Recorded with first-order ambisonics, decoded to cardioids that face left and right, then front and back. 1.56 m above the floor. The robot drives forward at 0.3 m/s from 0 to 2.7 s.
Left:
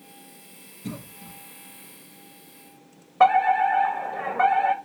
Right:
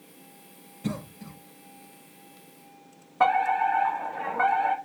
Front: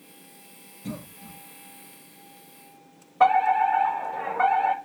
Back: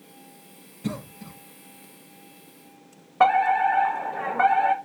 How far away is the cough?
About 0.5 m.